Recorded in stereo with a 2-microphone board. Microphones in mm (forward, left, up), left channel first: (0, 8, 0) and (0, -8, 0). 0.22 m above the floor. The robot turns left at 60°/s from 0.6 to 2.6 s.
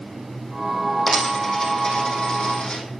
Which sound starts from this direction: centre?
A dropped coin, at 1.1 s.